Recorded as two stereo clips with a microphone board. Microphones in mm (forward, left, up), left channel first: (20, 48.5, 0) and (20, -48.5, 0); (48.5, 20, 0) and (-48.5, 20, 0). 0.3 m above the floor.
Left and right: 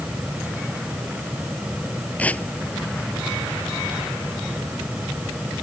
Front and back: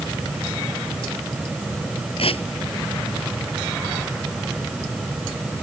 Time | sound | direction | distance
2.2 | tearing paper | 15° left | ?